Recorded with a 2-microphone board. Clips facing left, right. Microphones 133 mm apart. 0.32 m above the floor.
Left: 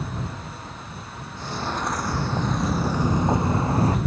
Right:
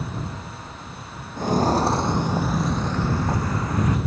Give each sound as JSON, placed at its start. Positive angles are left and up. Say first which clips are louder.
{"t": 1.4, "sound": "footsteps", "louder": "right 10 dB", "side_deg": -50}